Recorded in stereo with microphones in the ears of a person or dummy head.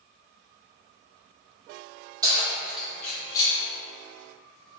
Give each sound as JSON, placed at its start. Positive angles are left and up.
{"t": 2.2, "sound": "keys jangling", "side_deg": -15, "distance_m": 1.6}